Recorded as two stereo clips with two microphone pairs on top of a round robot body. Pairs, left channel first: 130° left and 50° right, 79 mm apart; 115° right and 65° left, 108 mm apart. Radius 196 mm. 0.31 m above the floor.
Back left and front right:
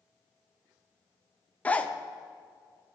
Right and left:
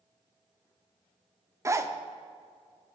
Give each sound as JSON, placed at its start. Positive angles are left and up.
{"t": 1.6, "sound": "a zipper", "azimuth_deg": 100, "distance_m": 1.1}